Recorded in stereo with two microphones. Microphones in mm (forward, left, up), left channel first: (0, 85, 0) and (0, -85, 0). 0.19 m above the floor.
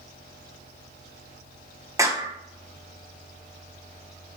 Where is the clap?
20° right (ahead or behind), 1.3 m.